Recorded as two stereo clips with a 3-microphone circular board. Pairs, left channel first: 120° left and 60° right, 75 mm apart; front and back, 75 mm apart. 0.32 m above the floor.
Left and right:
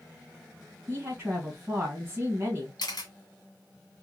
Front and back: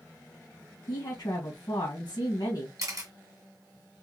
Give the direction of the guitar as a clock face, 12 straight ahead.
I don't hear a guitar.